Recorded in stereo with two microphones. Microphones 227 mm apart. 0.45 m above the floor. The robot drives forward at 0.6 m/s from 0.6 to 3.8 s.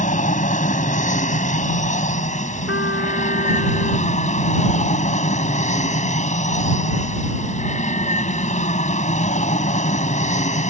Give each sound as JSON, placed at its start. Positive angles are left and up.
{"t": 0.0, "sound": "an aircraft", "side_deg": 35}
{"t": 2.7, "sound": "a trumpet", "side_deg": 60}